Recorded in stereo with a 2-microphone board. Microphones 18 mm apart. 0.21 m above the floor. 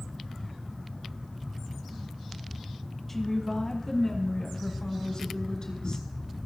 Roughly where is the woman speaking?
Centre.